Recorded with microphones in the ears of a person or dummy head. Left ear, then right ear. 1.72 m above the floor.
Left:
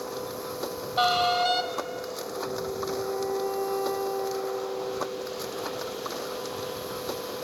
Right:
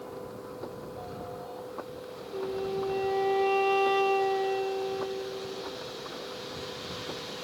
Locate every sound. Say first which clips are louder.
0.0 s a machine running: left 7 dB; 70° left (ahead or behind)
2.3 s a flute: right 2 dB; 50° right (ahead or behind)